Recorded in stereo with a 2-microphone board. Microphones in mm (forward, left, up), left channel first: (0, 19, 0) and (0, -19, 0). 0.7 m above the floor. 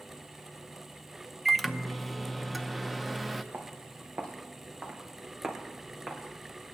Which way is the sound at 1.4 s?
Centre (ahead or behind).